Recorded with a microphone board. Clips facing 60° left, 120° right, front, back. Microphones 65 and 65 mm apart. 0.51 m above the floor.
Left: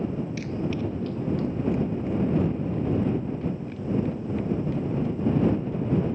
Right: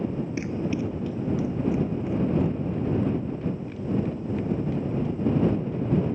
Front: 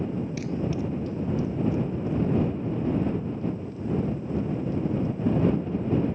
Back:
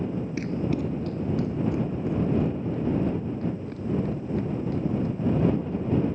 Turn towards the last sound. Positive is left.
turn(degrees=150)